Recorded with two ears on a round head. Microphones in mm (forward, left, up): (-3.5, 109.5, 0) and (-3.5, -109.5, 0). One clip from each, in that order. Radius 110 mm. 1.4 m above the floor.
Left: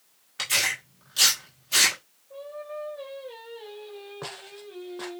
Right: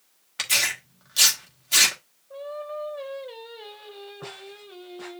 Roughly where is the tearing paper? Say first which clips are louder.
Right 1 dB; right.